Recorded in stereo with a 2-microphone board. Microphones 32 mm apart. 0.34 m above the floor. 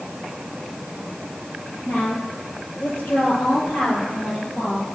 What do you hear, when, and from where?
1.9 s a woman speaking: 65° left (ahead or behind), 6.5 m; by 4.9 s 40° left (ahead or behind), 6 m